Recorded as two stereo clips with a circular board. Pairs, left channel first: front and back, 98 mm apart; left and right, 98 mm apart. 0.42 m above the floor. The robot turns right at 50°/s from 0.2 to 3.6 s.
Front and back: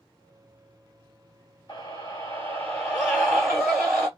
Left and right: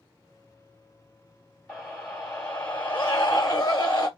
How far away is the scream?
About 1.0 m.